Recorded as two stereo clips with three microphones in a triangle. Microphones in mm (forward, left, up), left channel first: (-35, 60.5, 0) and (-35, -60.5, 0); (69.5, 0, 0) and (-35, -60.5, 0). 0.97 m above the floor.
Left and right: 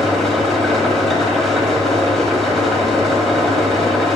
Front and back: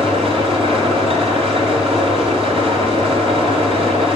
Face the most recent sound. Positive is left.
turn(degrees=175)